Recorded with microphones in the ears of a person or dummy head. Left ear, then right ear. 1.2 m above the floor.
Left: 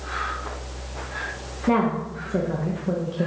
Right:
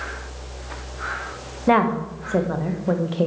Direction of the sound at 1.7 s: 30° right (ahead or behind).